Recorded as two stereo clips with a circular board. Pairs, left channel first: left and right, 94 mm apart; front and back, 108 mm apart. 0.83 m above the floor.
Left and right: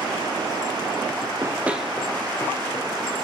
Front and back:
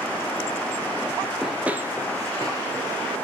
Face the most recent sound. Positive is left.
turn(degrees=135)